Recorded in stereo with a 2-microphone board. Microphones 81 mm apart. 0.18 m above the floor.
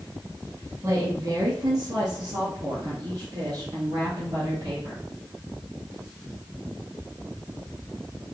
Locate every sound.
0.8 s a woman speaking: 35° right (ahead or behind), 1.2 m; by 5.0 s 45° right (ahead or behind), 3.5 m